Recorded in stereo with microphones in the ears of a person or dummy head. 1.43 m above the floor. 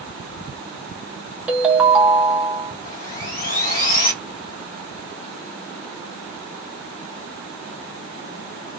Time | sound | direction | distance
1.5 | a ringtone | 5° right (ahead or behind) | 0.5 m
2.9 | sawing | 45° left (ahead or behind) | 1.1 m